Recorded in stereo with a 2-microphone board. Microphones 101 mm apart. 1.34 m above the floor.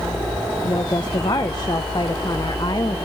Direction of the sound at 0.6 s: 45° left (ahead or behind).